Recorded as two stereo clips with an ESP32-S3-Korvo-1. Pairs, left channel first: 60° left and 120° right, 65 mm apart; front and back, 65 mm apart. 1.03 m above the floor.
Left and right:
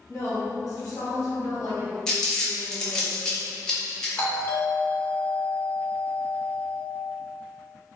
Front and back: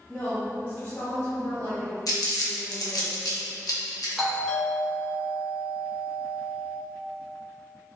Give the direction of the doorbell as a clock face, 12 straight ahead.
9 o'clock.